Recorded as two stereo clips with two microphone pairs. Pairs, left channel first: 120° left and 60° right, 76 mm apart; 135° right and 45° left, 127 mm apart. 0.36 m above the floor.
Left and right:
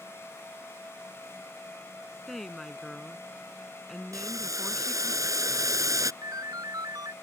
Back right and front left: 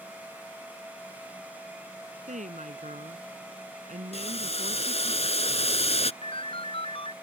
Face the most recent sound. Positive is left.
turn(degrees=-95)